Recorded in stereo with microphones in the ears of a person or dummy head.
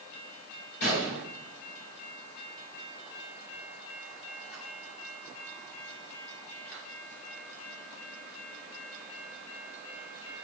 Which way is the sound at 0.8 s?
60° left (ahead or behind).